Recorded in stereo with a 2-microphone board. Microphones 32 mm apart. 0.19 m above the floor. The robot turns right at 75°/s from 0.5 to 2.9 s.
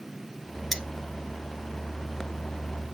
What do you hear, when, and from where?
0.7 s cutlery clinking: centre (ahead or behind), 1.4 m; by 0.8 s 5° left (ahead or behind), 1.4 m